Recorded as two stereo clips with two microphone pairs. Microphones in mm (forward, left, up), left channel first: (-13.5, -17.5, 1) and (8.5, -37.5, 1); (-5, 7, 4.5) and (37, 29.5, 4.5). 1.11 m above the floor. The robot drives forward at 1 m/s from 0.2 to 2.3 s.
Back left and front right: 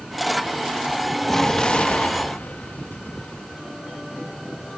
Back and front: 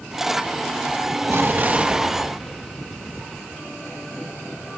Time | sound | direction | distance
1.3 | an explosion | 60° left | ?